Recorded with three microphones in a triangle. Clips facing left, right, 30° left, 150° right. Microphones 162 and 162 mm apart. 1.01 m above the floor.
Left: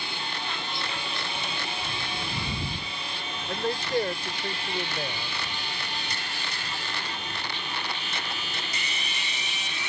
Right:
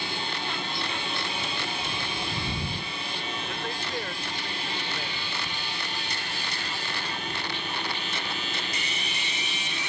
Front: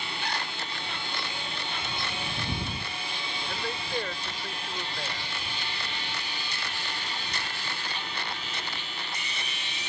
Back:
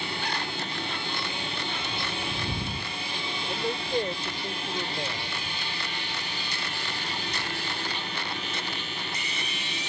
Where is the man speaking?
140° left.